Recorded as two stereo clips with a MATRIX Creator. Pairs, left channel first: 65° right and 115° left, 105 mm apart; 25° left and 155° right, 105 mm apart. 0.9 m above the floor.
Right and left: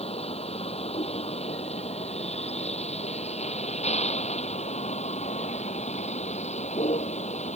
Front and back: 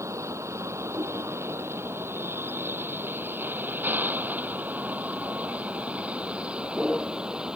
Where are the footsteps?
No footsteps in this recording.